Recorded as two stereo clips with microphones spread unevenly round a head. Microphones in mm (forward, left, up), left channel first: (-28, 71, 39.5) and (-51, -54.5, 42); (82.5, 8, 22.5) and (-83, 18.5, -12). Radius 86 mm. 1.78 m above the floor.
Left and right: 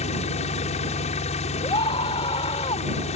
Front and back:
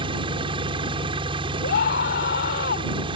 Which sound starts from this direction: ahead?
A scream, at 1.6 s.